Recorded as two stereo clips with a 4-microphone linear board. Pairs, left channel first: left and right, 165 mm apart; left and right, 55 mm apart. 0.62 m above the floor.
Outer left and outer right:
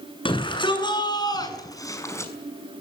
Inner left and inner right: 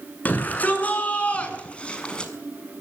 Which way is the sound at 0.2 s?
30° left (ahead or behind).